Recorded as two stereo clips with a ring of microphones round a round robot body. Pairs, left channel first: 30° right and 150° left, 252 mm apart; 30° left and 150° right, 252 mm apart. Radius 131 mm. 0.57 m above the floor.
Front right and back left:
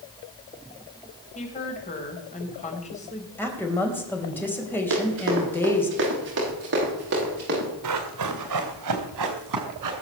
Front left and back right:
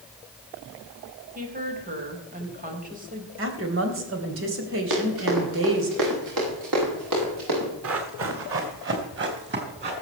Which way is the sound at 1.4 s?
90° right.